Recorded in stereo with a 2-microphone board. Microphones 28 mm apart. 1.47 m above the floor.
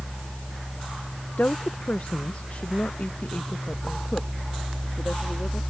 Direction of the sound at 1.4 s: 85° left.